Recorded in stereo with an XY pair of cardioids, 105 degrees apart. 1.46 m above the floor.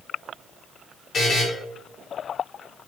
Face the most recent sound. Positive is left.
turn(degrees=50)